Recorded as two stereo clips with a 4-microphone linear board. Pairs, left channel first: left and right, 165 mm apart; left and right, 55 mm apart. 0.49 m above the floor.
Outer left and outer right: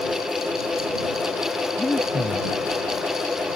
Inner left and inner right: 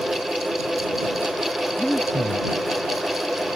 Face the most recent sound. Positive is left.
turn(degrees=10)  # may be behind; listen again after turning